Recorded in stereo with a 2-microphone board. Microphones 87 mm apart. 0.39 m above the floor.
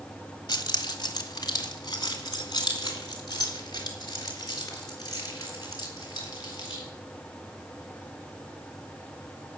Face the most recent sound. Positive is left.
turn(degrees=45)  # may be behind; listen again after turning